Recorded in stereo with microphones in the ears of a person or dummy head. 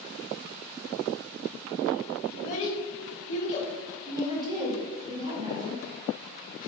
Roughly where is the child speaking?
Left.